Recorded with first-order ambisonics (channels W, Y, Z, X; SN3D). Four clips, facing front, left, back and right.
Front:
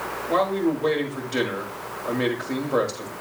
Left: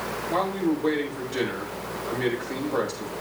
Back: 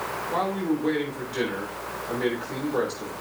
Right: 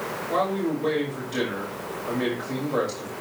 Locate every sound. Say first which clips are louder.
0.3 s a man speaking: even, front 5 dB; 10° right, 6.5 m